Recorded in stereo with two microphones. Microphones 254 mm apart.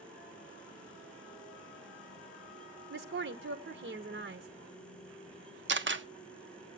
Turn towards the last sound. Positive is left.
turn(degrees=-50)  # may be behind; listen again after turning